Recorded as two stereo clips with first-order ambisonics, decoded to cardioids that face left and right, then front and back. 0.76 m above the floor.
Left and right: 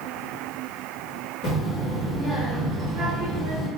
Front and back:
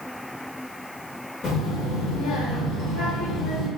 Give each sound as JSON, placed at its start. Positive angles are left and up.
{"t": 1.4, "sound": "a child speaking", "azimuth_deg": 50, "distance_m": 0.7}